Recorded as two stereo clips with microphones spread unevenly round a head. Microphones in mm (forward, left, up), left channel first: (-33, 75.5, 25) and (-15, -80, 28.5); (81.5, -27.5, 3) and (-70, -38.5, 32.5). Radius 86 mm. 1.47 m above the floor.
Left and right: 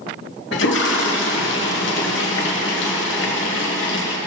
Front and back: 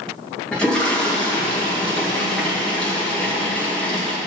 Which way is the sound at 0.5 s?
95° left.